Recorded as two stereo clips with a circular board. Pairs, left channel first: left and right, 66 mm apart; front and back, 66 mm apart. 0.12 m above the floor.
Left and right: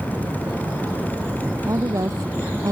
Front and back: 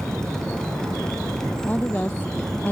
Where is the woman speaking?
65° right.